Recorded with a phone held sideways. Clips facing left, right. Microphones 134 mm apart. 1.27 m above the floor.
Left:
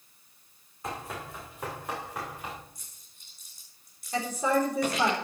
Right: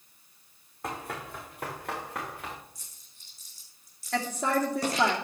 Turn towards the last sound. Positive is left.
turn(degrees=-75)  # may be behind; listen again after turning